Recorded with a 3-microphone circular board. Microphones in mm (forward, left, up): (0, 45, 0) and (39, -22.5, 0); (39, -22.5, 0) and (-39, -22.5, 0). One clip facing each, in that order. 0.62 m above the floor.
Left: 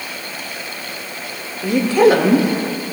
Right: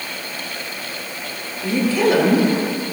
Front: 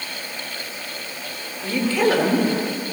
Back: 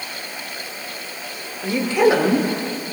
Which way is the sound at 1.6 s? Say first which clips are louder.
Left 5 dB, back 3 dB; 110° left.